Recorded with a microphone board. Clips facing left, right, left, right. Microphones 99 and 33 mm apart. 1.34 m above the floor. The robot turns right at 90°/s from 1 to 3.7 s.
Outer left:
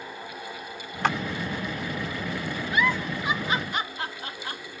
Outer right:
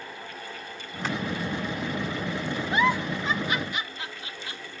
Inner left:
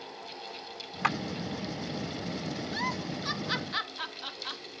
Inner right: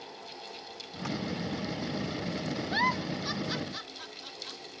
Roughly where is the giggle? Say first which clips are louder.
Outer right 2 dB, inner right 6 dB; right.